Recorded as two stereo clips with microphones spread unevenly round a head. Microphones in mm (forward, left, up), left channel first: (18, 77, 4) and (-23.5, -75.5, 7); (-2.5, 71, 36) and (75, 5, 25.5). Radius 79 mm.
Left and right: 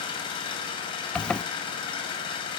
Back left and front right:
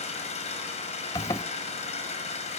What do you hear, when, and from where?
0.0 s an engine running: 135° left, 6 m
1.1 s a zipper: 155° left, 0.7 m